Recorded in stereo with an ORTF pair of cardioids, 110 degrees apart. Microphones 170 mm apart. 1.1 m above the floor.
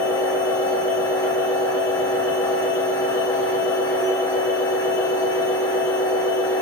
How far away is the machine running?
About 3 m.